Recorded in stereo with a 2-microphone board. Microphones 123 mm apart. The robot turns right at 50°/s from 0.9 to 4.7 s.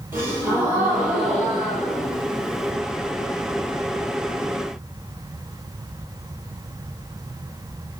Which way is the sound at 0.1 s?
20° right.